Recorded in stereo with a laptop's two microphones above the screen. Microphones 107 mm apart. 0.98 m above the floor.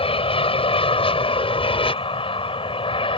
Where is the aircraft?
60° left (ahead or behind); by 3.2 s 55° left (ahead or behind).